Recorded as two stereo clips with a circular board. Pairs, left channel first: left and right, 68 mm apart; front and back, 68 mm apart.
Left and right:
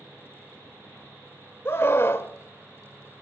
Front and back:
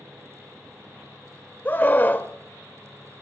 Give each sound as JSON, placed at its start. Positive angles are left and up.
{"t": 1.6, "sound": "a scream", "azimuth_deg": 55, "distance_m": 1.3}